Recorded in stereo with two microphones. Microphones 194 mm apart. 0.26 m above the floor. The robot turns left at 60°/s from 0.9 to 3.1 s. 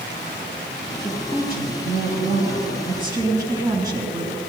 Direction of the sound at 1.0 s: 35° right.